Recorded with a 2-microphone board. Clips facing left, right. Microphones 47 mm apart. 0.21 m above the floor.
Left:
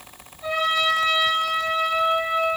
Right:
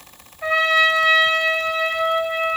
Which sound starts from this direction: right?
A trumpet, at 0.4 s.